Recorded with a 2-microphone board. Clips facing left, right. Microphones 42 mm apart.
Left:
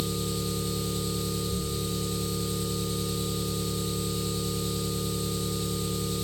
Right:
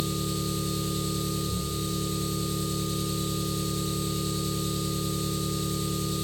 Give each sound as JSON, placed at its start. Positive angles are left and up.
{"t": 0.0, "sound": "an engine running", "side_deg": -65, "distance_m": 1.0}